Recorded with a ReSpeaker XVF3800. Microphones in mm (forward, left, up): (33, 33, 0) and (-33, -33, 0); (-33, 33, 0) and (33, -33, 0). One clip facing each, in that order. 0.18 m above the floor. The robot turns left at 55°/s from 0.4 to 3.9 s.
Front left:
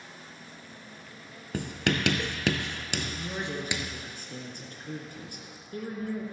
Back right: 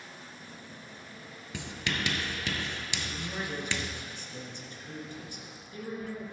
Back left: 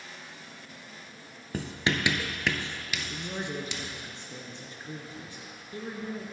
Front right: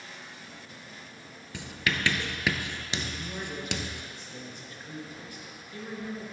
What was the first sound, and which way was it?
Writing, 90° left.